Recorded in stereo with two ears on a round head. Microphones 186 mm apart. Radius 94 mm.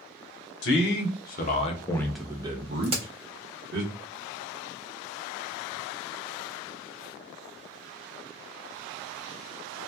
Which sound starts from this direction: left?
A man speaking, at 0.6 s.